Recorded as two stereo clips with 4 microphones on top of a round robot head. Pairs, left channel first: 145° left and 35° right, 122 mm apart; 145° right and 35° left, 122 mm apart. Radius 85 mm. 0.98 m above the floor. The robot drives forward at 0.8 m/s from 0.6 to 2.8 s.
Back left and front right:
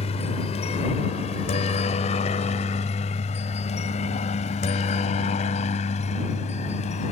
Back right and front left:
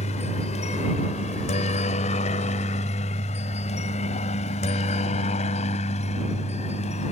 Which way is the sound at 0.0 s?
Straight behind.